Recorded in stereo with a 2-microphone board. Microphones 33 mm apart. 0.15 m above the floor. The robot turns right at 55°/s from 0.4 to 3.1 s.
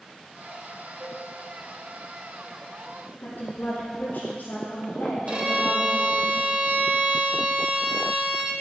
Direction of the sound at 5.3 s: 25° right (ahead or behind).